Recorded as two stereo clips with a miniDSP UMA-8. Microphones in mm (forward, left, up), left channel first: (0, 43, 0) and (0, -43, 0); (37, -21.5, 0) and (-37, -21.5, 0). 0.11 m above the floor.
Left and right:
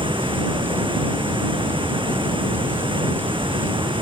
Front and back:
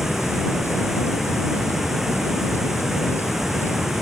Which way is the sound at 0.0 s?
95° right.